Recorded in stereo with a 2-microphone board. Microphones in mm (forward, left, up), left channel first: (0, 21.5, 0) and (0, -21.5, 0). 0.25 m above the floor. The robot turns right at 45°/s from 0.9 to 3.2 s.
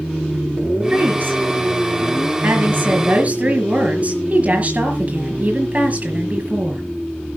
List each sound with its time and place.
0.9 s a woman speaking: 140° right, 5 m; by 6.8 s 40° right, 5 m